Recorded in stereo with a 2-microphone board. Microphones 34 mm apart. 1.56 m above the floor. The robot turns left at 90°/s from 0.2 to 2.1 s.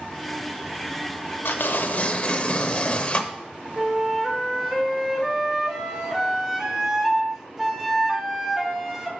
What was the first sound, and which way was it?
Tearing paper, 90° left.